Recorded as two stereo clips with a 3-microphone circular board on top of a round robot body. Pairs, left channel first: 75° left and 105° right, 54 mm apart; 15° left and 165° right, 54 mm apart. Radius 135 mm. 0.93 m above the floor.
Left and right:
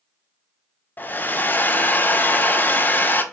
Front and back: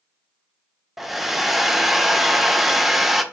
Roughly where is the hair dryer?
Left.